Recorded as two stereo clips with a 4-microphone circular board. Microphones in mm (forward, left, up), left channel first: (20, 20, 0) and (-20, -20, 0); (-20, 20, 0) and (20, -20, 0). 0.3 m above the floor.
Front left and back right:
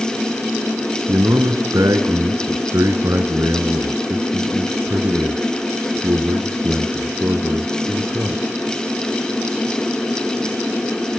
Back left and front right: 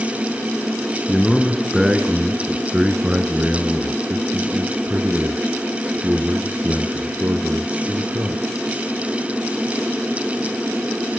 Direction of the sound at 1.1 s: 140° right.